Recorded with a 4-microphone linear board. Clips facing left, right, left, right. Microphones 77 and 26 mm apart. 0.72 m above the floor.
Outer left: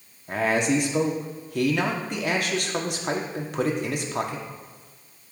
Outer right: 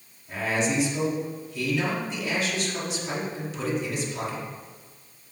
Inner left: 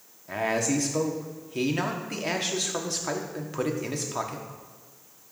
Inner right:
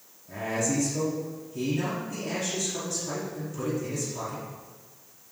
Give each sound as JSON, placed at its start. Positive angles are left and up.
{"t": 0.3, "sound": "a man speaking", "side_deg": 60, "distance_m": 1.2}